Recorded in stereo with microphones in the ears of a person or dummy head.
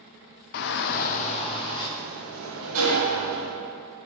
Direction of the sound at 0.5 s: 50° left (ahead or behind).